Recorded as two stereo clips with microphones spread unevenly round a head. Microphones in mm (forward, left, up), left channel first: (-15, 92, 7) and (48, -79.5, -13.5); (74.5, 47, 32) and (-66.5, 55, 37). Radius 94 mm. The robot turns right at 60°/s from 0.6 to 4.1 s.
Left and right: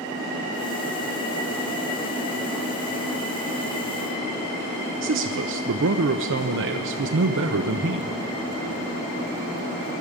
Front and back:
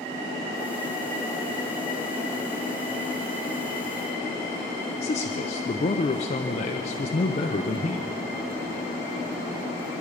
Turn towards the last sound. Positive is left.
turn(degrees=-55)